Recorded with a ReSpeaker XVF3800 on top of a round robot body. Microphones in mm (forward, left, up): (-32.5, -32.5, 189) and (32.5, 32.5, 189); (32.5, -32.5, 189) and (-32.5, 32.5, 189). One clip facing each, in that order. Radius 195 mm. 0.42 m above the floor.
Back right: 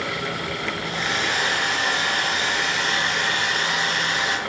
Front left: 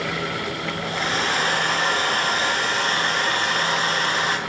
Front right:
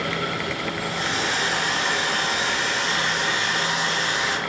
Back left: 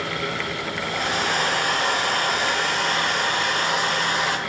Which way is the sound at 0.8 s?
95° left.